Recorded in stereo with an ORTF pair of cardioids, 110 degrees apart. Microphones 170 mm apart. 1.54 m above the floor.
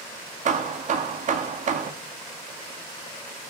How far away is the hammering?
About 2 m.